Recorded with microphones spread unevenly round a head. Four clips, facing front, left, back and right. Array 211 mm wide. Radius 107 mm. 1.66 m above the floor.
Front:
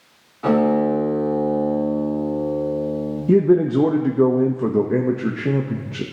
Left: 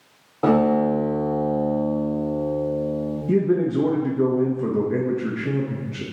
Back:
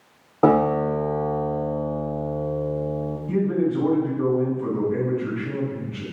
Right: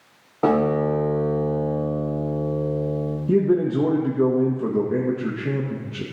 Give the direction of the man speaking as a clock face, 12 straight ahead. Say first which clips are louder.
Right 1 dB, front 8 dB; 12 o'clock.